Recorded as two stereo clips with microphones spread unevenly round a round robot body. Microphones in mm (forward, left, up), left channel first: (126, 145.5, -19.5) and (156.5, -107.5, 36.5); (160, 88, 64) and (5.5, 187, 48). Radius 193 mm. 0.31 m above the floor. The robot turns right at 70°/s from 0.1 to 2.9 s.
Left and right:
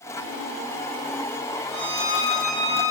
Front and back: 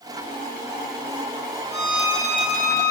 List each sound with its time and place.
1.7 s a violin: 90° left, 9 m; by 2.9 s 175° left, 9 m